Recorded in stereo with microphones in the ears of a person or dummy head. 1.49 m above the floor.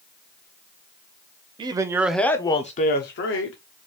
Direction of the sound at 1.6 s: 30° right (ahead or behind).